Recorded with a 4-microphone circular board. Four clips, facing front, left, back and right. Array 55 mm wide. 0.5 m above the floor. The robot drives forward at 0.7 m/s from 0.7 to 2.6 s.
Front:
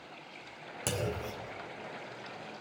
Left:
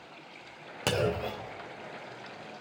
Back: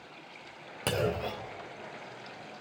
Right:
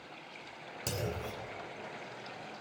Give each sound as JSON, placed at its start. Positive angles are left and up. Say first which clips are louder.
{"t": 0.9, "sound": "a clunk", "louder": "left 9 dB, back 5 dB", "azimuth_deg": 115, "distance_m": 0.5}